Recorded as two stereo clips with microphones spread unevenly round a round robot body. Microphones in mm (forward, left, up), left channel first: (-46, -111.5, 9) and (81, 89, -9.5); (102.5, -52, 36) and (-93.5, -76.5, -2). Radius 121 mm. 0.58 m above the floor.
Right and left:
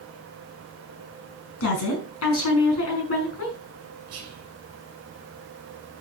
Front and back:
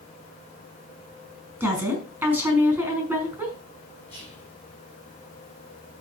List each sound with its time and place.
1.6 s a woman speaking: 95° right, 5.5 m
4.1 s whispering: 95° left, 2.5 m